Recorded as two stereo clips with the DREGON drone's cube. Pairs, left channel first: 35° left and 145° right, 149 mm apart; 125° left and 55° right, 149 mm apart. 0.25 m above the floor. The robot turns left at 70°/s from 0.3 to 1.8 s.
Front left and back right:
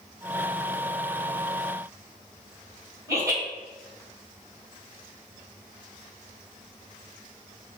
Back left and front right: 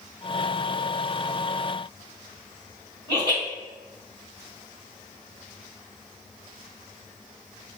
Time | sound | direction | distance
3.1 | laughter | 95° right | 1.5 m